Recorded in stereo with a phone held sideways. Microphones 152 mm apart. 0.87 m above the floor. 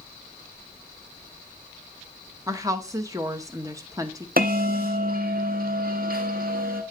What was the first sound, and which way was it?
A woman speaking, 20° right (ahead or behind).